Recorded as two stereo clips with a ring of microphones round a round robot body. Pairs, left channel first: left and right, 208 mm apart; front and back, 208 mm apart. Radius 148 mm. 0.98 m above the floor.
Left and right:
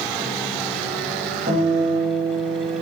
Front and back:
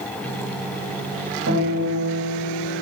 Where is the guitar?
150° right, 2 m.